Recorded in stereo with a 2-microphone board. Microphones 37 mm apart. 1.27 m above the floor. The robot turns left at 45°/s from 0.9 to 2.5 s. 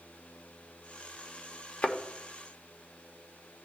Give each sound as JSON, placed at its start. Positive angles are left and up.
{"t": 1.8, "sound": "a thud", "side_deg": 35, "distance_m": 1.0}